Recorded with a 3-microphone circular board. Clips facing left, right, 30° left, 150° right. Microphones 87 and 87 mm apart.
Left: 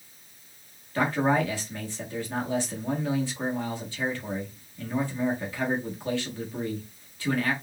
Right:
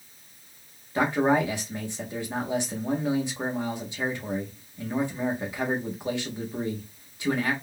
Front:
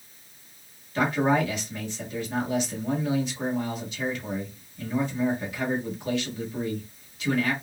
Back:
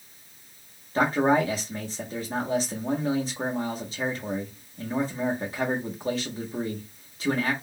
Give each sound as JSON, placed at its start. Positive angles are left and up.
{"t": 0.9, "sound": "a man speaking", "azimuth_deg": -150, "distance_m": 1.0}